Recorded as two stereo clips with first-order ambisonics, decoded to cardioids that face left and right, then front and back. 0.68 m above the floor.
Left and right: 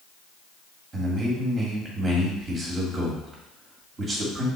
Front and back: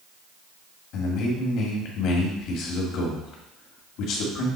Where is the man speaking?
20° right, 1.8 m.